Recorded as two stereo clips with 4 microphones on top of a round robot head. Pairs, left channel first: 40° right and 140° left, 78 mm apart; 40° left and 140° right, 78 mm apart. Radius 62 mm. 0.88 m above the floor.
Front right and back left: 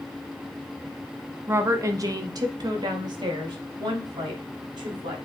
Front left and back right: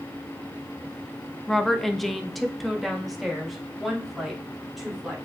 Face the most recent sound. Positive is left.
turn(degrees=130)